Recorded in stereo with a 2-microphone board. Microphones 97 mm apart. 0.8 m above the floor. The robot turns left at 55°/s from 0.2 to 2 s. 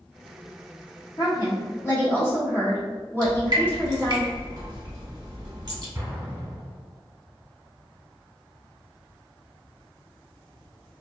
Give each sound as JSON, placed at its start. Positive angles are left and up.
{"t": 1.2, "sound": "a woman speaking", "azimuth_deg": 80, "distance_m": 1.3}
{"t": 3.2, "sound": "dripping", "side_deg": -45, "distance_m": 0.9}
{"t": 6.0, "sound": "an explosion", "side_deg": -30, "distance_m": 0.9}